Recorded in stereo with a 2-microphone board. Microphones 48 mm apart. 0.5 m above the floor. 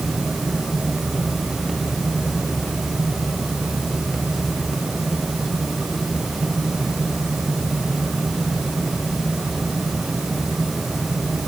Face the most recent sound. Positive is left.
No sound to turn to.